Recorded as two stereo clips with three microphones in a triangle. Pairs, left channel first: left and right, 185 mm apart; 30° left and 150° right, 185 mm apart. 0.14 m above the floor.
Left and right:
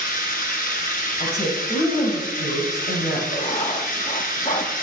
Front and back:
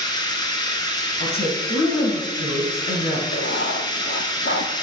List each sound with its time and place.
0.0 s running water: 90° left, 1.8 m
1.2 s a woman speaking: 55° left, 3 m
3.3 s writing: 40° left, 1.3 m